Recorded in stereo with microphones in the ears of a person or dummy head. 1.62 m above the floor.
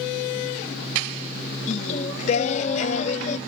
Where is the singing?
40° left (ahead or behind), 0.5 m.